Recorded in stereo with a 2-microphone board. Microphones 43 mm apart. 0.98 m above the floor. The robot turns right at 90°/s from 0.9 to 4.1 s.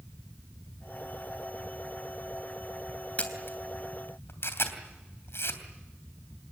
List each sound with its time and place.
3.2 s a camera shutter: 30° left (ahead or behind), 3 m; by 5.6 s 65° left (ahead or behind), 3 m